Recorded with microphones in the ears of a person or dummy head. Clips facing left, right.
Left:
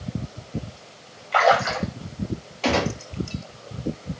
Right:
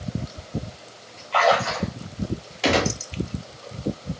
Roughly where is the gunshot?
Centre.